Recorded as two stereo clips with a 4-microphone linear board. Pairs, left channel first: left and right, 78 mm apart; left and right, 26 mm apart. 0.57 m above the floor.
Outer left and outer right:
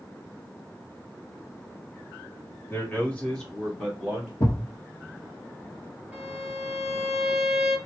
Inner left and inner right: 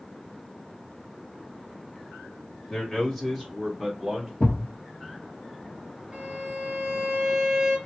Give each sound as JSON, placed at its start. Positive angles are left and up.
{"t": 2.7, "sound": "a man speaking", "side_deg": 25, "distance_m": 1.3}
{"t": 4.4, "sound": "a thud", "side_deg": 50, "distance_m": 1.1}
{"t": 6.1, "sound": "a violin", "side_deg": -10, "distance_m": 1.7}